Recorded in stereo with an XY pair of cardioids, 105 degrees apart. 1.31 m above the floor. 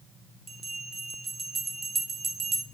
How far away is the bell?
About 0.6 m.